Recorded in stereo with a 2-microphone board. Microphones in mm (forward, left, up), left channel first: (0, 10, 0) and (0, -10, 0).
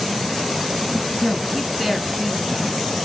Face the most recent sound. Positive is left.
turn(degrees=-15)  # may be behind; listen again after turning